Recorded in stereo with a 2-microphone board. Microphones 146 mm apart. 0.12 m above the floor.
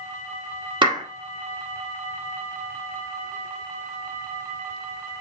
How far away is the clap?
About 1.3 m.